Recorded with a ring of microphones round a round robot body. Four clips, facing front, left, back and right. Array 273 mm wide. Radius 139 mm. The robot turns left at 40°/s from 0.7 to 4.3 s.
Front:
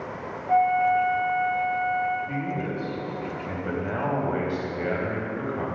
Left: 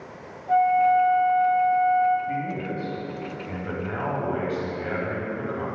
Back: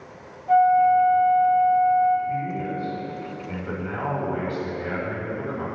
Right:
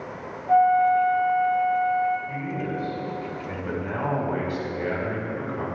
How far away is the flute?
About 1.2 m.